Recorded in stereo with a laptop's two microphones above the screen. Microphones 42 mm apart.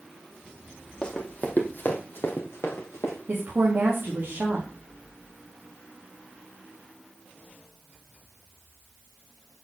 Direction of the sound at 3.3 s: 45° right (ahead or behind).